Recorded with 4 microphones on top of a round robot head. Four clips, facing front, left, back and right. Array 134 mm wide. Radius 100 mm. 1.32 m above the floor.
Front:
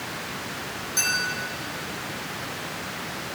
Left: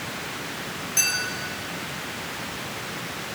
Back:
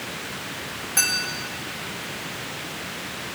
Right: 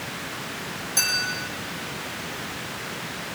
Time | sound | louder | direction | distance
1.0 | a clink | right 2 dB, back 2 dB | 155° right | 3 m